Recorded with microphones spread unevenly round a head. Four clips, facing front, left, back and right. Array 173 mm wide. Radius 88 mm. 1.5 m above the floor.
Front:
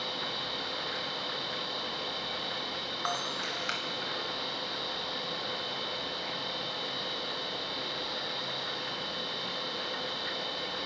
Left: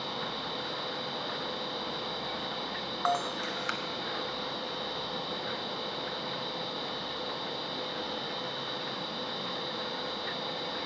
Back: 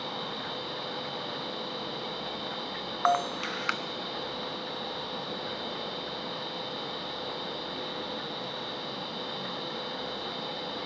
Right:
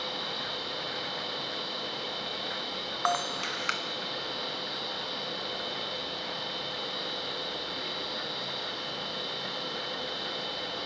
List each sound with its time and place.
0.0 s a machine running: 145° left, 4.5 m
3.0 s a camera shutter: 175° right, 0.8 m